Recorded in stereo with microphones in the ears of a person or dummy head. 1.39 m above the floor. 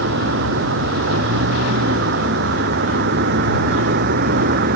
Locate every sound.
0.0 s a vehicle: 70° right (ahead or behind); by 4.8 s 60° right (ahead or behind)